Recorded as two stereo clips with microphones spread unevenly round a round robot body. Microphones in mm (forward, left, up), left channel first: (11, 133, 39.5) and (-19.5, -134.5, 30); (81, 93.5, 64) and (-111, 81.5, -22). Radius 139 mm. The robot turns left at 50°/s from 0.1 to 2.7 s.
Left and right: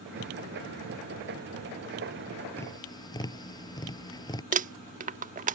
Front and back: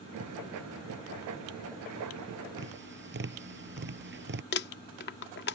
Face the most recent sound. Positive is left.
turn(degrees=-50)